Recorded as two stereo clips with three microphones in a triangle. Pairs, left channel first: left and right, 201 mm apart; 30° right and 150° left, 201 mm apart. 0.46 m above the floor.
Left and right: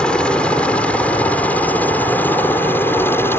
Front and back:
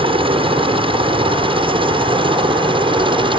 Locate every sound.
0.0 s a helicopter: 170° left; by 3.4 s 155° left